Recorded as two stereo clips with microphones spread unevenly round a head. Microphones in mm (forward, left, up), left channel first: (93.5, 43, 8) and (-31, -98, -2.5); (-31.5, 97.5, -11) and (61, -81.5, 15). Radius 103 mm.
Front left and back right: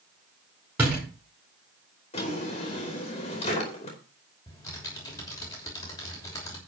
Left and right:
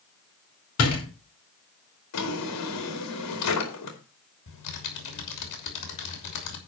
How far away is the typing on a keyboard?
About 3 m.